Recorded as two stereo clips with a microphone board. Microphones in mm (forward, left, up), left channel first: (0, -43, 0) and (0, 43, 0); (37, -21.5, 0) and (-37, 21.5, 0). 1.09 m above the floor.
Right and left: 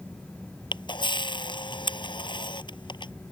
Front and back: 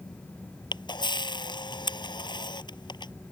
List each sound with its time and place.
0.7 s a camera shutter: 60° right